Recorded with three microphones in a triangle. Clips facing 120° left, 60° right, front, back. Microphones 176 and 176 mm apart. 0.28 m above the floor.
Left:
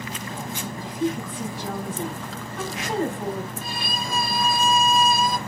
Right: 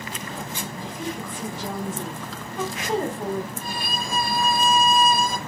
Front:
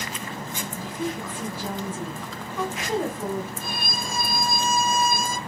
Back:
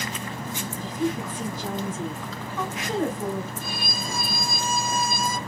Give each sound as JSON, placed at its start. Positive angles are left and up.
{"t": 0.8, "sound": "a woman speaking", "azimuth_deg": -65, "distance_m": 1.3}
{"t": 3.6, "sound": "a violin", "azimuth_deg": -20, "distance_m": 0.6}